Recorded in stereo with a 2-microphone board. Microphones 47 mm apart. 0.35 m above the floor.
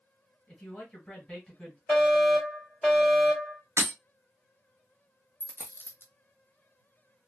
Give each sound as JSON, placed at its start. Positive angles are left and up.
{"t": 0.5, "sound": "a man speaking", "side_deg": 20, "distance_m": 1.5}
{"t": 1.9, "sound": "a fire alarm", "side_deg": 20, "distance_m": 2.0}
{"t": 3.8, "sound": "breaking glass", "side_deg": -70, "distance_m": 1.0}
{"t": 5.4, "sound": "a dropped coin", "side_deg": 55, "distance_m": 0.8}